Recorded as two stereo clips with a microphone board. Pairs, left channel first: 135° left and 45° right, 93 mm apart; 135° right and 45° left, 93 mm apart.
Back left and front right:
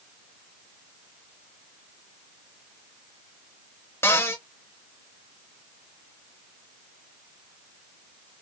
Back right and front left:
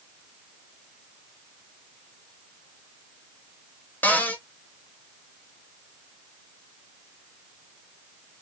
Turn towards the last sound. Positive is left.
turn(degrees=170)